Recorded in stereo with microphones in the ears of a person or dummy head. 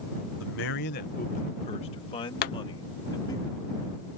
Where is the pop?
45° left (ahead or behind).